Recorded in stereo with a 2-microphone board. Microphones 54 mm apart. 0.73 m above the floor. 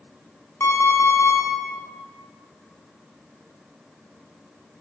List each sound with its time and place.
0.6 s an alarm clock: 50° left (ahead or behind), 1.4 m